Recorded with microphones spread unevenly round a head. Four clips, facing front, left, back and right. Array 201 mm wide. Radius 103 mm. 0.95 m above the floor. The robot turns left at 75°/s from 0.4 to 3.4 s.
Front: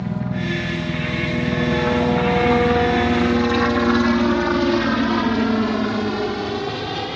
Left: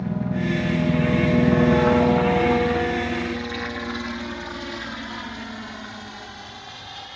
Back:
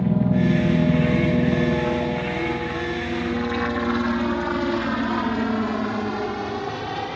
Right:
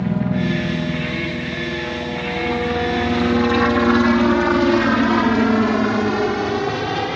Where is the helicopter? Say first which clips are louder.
Right 5 dB, back 5 dB; 135° right; by 7.2 s 75° right.